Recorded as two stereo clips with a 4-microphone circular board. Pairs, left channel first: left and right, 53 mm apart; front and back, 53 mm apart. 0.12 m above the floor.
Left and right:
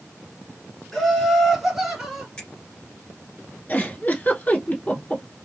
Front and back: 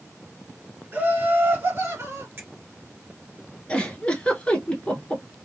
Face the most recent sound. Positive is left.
turn(degrees=55)